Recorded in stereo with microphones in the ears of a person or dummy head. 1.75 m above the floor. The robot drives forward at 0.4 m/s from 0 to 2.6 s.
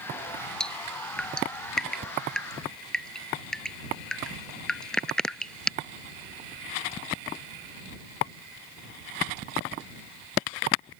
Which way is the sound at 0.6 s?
10° left (ahead or behind).